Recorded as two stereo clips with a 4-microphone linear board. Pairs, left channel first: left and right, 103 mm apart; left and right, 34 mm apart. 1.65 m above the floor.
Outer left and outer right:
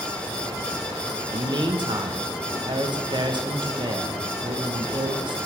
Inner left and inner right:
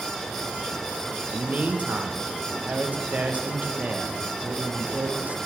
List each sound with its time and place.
1.3 s a man speaking: 50° right (ahead or behind), 0.7 m